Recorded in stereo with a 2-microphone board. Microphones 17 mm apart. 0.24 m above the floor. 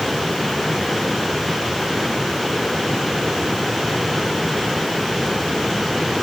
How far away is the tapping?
No tapping in this recording.